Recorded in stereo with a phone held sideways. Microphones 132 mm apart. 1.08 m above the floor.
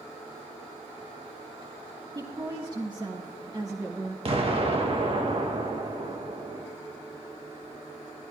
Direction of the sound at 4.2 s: 45° right (ahead or behind).